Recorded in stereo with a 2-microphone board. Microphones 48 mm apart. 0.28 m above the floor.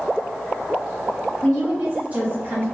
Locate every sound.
1.4 s a woman speaking: 5° left (ahead or behind), 0.9 m; by 2.6 s 50° right (ahead or behind), 1.4 m